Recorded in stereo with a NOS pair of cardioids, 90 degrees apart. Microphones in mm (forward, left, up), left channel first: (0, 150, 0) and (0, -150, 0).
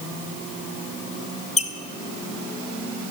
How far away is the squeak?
About 0.6 m.